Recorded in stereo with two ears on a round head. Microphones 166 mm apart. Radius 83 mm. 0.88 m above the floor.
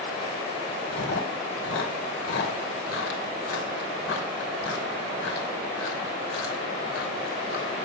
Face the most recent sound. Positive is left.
turn(degrees=70)  # may be behind; listen again after turning